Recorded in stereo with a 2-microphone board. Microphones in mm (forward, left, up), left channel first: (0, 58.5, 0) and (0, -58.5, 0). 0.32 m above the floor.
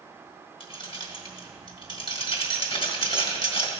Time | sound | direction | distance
0.6 | keys jangling | 50° left (ahead or behind) | 1.3 m